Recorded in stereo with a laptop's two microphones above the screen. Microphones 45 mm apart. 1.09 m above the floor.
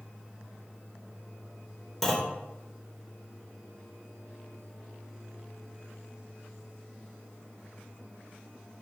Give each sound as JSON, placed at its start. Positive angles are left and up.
{"t": 2.0, "sound": "a clunk", "side_deg": 5, "distance_m": 2.0}